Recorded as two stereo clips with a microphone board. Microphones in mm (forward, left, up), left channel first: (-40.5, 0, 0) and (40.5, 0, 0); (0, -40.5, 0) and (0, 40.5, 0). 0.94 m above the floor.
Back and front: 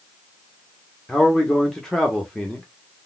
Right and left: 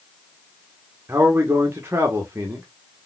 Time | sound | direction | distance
1.1 | a man speaking | 100° left | 0.9 m